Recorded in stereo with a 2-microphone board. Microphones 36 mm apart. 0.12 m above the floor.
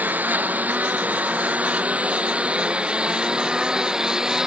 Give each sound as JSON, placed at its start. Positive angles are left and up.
{"t": 0.0, "sound": "a lawn mower", "side_deg": -55}